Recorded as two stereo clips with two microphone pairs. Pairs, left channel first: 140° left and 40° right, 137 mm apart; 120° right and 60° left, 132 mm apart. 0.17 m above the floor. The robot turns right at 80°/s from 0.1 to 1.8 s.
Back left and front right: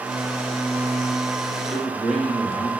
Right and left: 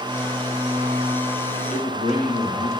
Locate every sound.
1.7 s a man speaking: 135° right, 4 m; by 2.7 s 130° right, 4 m